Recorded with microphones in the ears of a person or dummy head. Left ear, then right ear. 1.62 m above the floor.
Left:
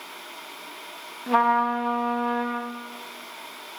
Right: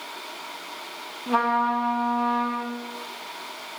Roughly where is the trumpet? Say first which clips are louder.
Left 2 dB; centre.